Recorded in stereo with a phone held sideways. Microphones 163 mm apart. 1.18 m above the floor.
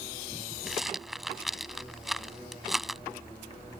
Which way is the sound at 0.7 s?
Centre (ahead or behind).